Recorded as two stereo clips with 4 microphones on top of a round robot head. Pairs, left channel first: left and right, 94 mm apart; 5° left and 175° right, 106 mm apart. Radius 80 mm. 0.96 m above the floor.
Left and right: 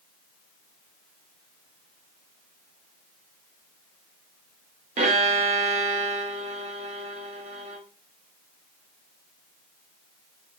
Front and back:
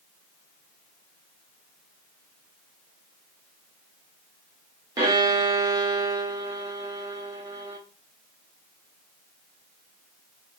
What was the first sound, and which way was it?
A violin, 110° right.